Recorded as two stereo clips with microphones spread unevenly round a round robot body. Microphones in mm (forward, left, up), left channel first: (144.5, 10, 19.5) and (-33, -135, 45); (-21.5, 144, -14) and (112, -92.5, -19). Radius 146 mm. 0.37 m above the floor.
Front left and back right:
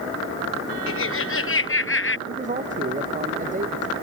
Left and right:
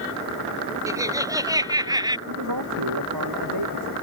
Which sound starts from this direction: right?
A man speaking, at 2.3 s.